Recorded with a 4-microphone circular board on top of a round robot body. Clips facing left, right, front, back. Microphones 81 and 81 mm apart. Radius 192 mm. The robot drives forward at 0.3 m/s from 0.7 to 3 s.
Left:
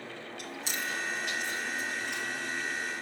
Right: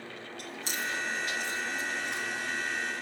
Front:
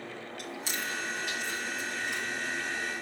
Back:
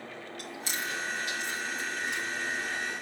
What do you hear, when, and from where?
0.4 s chewing: 135° right, 3 m; by 2.2 s 140° right, 3.5 m